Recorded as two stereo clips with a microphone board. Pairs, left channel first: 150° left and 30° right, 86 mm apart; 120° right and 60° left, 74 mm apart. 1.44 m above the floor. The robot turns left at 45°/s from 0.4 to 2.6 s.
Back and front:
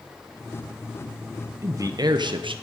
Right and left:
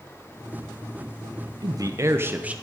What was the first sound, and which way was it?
A man speaking, 30° left.